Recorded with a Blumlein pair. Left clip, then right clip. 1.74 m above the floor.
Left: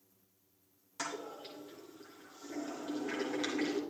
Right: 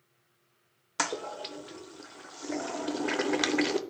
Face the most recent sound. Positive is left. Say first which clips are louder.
# right 9 dB
turn(degrees=-55)